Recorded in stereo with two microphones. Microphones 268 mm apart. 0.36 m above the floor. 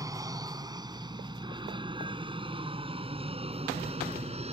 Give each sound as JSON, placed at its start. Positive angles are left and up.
{"t": 0.0, "sound": "an aircraft", "side_deg": -15}